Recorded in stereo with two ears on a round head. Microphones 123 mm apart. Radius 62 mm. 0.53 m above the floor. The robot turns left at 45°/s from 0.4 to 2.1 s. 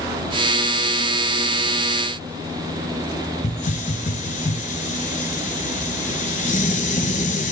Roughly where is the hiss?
Left.